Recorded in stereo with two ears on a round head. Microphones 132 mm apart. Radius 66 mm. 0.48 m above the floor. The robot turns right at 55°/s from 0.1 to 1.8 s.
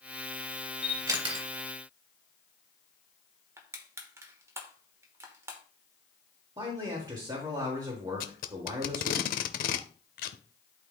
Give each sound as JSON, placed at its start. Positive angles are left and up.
{"t": 0.8, "sound": "a camera shutter", "side_deg": -10, "distance_m": 2.0}
{"t": 3.6, "sound": "crushing", "side_deg": -20, "distance_m": 1.1}
{"t": 6.6, "sound": "a man speaking", "side_deg": -25, "distance_m": 1.6}
{"t": 8.2, "sound": "tape being pulled", "side_deg": 60, "distance_m": 0.6}